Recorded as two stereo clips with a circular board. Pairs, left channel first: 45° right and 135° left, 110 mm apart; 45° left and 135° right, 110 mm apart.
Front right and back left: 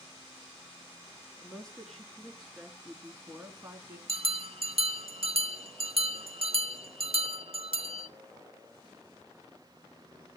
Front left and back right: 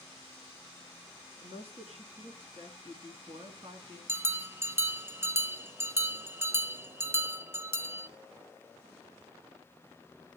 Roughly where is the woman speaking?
Behind right.